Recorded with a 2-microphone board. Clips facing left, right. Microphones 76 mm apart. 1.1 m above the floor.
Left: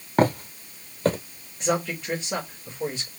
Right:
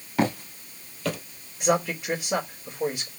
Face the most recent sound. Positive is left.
turn(degrees=-10)  # may be behind; listen again after turning